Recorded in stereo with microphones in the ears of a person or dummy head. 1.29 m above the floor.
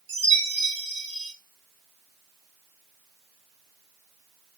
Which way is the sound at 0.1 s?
25° right (ahead or behind).